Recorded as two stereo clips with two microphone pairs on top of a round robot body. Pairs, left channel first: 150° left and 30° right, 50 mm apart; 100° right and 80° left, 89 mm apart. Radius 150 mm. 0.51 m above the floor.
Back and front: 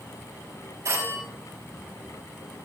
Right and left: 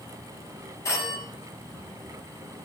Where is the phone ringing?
40° right, 3.5 m.